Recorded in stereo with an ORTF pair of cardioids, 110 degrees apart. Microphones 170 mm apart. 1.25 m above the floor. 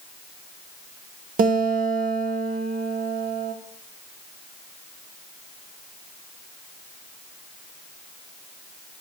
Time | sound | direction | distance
1.4 | a guitar | 55° right | 1.8 m